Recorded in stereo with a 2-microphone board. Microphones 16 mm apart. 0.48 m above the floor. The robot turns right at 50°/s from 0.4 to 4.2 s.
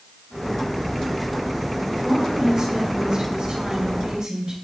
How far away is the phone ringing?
No phone ringing in this recording.